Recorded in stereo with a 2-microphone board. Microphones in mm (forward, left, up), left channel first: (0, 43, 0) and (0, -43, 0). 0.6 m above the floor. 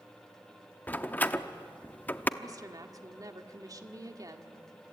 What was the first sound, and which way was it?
A door slam, 20° left (ahead or behind).